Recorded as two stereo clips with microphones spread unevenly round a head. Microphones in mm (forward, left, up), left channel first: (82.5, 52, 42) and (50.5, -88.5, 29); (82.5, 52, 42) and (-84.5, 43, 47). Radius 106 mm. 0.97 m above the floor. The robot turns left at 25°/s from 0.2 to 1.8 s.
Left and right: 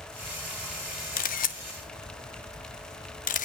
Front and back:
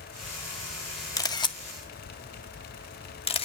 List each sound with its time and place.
1.2 s a camera shutter: 70° left, 1.3 m; by 3.5 s 55° left, 1.3 m